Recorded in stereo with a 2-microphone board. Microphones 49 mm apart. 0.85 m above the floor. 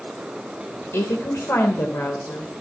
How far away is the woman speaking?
About 2.5 m.